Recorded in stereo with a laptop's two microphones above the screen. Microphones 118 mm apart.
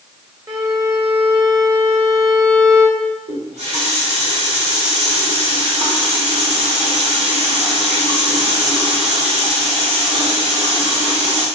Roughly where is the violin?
Right.